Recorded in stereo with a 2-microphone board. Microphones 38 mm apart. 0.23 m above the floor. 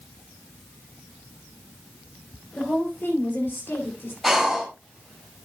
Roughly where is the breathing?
Centre.